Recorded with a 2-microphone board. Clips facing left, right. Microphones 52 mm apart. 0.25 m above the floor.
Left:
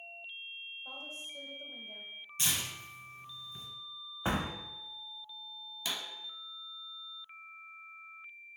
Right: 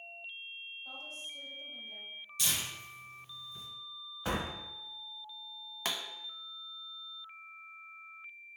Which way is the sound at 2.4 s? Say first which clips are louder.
Left 1 dB; 35° left (ahead or behind).